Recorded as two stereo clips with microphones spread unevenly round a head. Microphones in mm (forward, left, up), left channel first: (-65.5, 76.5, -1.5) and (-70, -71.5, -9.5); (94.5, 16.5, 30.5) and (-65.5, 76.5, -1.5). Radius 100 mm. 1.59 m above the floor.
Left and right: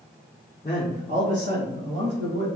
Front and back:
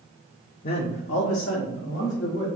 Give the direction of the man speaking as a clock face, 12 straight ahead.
11 o'clock.